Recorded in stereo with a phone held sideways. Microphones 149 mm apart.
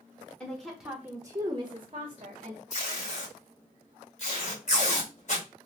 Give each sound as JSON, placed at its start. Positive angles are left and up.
{"t": 0.4, "sound": "a woman speaking", "side_deg": 5, "distance_m": 0.8}
{"t": 2.7, "sound": "tape being pulled", "side_deg": 55, "distance_m": 2.0}